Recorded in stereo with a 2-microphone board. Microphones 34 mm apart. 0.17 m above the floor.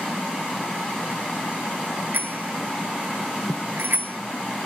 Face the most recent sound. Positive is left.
turn(degrees=-80)